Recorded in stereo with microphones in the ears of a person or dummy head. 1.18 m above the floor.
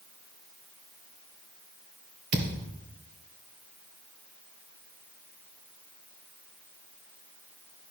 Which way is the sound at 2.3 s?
50° right (ahead or behind).